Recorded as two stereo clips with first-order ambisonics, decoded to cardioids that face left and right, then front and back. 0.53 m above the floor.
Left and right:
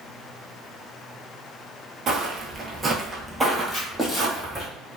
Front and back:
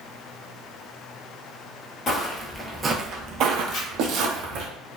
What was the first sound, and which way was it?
Footsteps, 45° right.